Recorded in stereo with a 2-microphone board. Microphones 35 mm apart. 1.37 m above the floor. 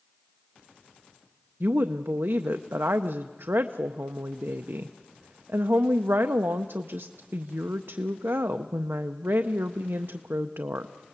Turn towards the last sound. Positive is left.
turn(degrees=-85)